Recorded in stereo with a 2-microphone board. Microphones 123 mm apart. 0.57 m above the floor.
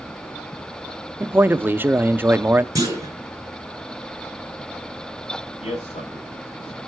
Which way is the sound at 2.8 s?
30° right (ahead or behind).